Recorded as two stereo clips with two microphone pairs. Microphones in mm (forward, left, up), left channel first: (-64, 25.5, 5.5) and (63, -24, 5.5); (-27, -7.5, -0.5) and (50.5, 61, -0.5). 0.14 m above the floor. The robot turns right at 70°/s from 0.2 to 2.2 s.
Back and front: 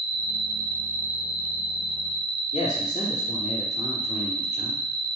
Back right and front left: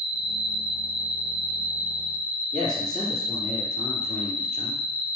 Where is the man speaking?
155° left, 3 m.